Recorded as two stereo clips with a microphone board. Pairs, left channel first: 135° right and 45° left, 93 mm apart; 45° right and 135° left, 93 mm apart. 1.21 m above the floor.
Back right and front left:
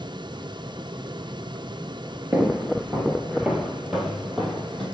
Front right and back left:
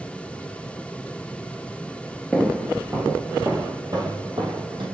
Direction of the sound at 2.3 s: 50° left.